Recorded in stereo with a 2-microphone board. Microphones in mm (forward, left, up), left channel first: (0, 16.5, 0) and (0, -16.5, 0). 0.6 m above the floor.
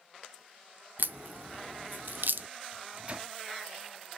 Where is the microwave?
35° right (ahead or behind), 0.5 m.